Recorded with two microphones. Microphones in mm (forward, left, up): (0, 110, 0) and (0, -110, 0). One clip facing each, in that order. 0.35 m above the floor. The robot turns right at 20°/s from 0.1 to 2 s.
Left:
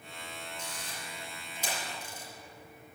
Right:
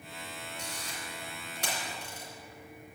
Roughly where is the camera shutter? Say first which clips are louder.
Right 2 dB; right.